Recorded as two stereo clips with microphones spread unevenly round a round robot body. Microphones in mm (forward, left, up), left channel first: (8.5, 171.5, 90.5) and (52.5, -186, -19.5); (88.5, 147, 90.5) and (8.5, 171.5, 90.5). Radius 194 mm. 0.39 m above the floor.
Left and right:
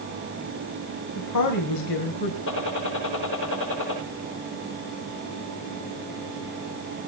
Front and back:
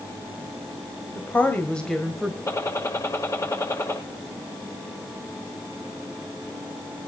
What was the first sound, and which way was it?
A woman speaking, 45° left.